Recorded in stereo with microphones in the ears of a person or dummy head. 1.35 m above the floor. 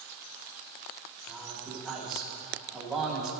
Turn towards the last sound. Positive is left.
turn(degrees=0)  # may be behind; listen again after turning